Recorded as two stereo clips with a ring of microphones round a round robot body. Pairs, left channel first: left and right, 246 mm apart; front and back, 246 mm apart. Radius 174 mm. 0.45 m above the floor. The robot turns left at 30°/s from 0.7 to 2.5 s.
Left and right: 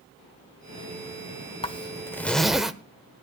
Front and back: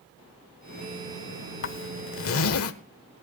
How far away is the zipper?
About 1.2 m.